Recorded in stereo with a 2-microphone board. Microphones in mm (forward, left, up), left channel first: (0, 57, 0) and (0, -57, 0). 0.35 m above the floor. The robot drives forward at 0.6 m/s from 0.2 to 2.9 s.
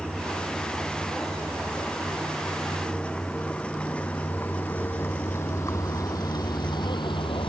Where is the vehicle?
5° right (ahead or behind); by 7.5 s 50° left (ahead or behind).